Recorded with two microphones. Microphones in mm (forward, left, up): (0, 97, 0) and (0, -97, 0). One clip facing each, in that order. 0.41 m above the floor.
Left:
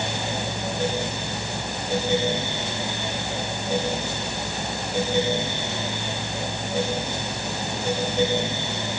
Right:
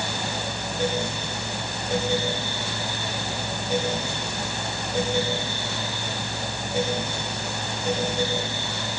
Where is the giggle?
I don't hear a giggle.